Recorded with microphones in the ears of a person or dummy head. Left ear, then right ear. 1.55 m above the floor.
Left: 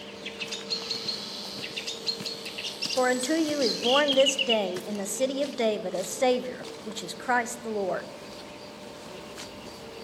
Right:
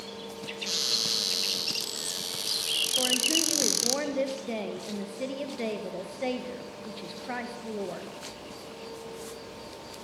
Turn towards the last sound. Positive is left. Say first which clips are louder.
# left 4 dB
turn(degrees=45)  # may be behind; listen again after turning